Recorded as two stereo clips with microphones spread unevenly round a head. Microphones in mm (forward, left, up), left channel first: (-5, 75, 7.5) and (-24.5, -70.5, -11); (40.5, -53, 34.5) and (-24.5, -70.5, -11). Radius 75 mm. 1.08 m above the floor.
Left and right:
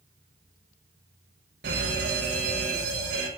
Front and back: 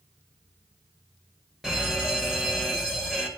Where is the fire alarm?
85° right, 8 m.